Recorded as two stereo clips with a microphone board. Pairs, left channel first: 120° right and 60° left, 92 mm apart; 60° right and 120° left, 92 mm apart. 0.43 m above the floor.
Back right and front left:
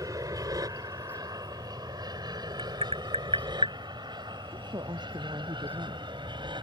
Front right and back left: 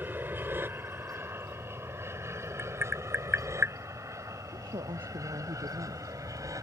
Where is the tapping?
55° left.